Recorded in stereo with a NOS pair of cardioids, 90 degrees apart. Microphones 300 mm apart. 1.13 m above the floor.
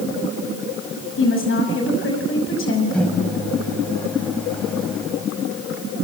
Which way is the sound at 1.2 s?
45° left.